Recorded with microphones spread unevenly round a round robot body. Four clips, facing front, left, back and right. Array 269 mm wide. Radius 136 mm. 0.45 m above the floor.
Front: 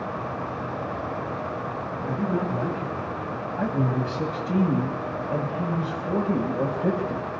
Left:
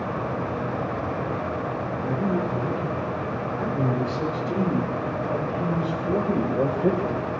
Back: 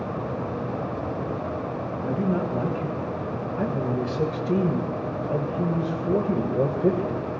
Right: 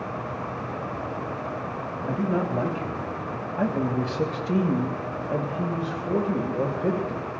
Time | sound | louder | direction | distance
2.1 | a man speaking | right 1 dB, back 1 dB | 135° right | 2.5 m